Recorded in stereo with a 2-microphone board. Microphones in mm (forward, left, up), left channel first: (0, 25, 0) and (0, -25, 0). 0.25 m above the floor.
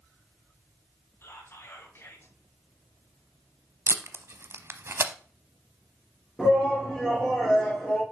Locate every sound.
1.2 s whispering: 50° left (ahead or behind), 1.9 m
3.9 s tape being pulled: 55° right (ahead or behind), 0.6 m
6.4 s a shout: 5° right (ahead or behind), 4 m